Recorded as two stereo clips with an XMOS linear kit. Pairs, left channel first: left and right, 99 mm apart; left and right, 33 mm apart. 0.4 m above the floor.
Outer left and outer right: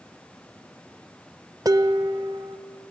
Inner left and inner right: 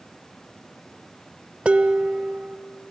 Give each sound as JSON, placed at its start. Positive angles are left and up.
{"t": 1.6, "sound": "dishes clattering", "side_deg": -35, "distance_m": 0.6}